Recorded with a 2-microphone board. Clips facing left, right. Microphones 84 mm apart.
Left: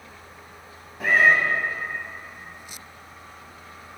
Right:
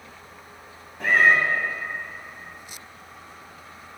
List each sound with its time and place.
1.0 s a cat meowing: centre (ahead or behind), 0.5 m